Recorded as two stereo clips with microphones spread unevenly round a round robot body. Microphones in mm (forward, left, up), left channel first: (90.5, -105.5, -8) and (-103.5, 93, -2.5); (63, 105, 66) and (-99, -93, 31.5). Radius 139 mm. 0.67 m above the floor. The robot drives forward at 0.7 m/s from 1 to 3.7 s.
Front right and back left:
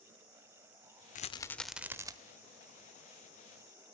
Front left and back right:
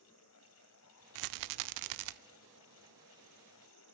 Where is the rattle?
110° right, 0.6 m; by 2.1 s 150° right, 1.0 m.